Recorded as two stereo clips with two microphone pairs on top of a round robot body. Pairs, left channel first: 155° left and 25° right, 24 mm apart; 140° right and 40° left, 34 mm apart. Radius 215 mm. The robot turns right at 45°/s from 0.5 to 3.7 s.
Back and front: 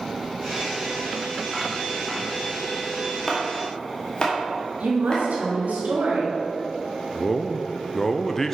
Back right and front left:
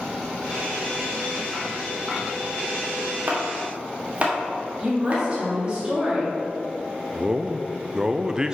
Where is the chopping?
80° left, 1.6 m; by 5.2 s 100° left, 1.6 m.